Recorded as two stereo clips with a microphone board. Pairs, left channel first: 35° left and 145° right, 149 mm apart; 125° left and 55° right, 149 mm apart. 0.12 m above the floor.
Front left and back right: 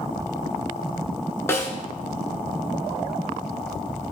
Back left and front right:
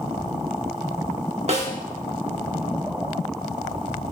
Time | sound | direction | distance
1.5 | a snare drum | 35° right | 0.7 m